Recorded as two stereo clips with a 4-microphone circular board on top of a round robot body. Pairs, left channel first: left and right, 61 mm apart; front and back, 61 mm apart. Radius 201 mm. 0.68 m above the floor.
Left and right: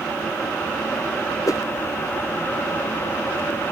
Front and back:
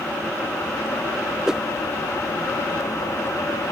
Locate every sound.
1.5 s a whoosh: 100° left